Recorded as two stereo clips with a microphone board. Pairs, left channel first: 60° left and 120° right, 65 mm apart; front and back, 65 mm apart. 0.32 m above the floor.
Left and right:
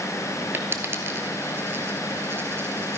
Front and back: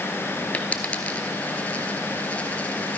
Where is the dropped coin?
70° right, 1.1 m.